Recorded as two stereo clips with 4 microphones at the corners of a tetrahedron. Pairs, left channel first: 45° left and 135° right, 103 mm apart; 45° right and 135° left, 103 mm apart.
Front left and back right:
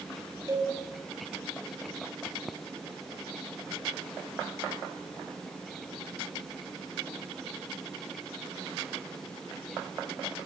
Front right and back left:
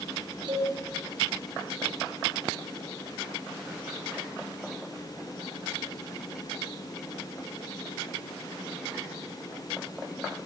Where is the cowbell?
165° left, 6.5 m.